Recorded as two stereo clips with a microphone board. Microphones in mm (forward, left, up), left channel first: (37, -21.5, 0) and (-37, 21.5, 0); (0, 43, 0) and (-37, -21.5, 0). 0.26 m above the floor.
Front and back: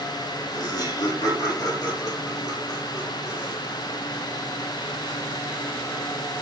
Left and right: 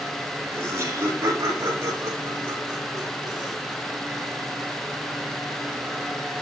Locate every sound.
0.5 s laughter: 70° right, 7.5 m; by 3.6 s 85° right, 6.5 m